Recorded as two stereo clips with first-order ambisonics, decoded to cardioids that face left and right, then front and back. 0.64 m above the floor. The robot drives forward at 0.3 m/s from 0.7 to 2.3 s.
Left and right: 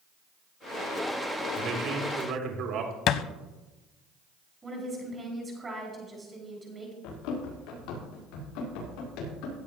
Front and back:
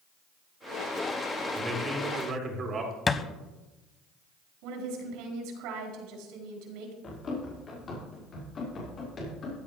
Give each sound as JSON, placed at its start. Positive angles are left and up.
{"t": 1.6, "sound": "a man speaking", "azimuth_deg": -115, "distance_m": 2.0}
{"t": 3.1, "sound": "a thud", "azimuth_deg": 70, "distance_m": 0.6}
{"t": 4.6, "sound": "a woman speaking", "azimuth_deg": -165, "distance_m": 4.5}
{"t": 7.0, "sound": "running footsteps", "azimuth_deg": 65, "distance_m": 6.5}